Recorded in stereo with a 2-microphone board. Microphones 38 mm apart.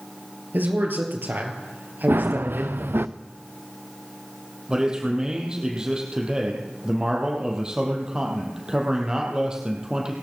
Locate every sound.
0.5 s a man speaking: 60° right (ahead or behind), 3.5 m
2.1 s running footsteps: 75° right (ahead or behind), 0.7 m
4.7 s a man speaking: 20° right (ahead or behind), 3.5 m